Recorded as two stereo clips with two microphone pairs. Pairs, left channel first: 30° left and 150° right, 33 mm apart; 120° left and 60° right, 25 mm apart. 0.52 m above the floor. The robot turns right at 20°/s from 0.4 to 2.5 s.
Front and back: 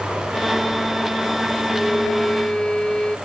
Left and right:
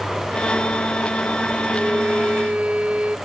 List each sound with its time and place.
1.7 s a violin: 50° right; by 3.2 s 35° right